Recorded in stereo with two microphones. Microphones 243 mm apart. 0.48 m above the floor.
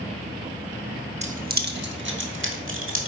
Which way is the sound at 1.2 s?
30° right (ahead or behind).